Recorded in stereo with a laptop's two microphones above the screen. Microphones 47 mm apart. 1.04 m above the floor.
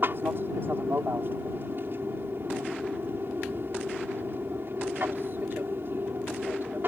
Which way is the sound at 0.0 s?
50° right (ahead or behind).